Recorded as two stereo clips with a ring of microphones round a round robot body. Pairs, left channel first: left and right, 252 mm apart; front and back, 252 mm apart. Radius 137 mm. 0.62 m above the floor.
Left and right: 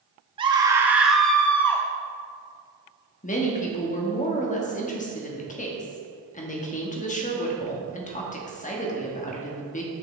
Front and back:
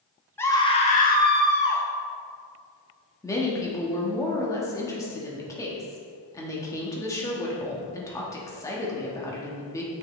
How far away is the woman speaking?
About 1.1 m.